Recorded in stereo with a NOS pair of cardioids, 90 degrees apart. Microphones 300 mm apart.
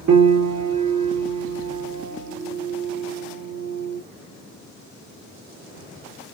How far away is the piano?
About 1.5 m.